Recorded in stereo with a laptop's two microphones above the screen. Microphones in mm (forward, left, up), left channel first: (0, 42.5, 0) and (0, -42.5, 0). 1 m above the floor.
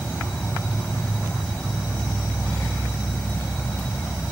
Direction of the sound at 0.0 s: 15° left (ahead or behind).